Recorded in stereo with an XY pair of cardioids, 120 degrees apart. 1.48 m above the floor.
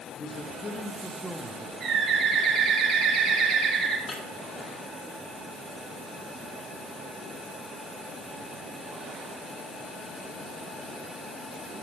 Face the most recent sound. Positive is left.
turn(degrees=40)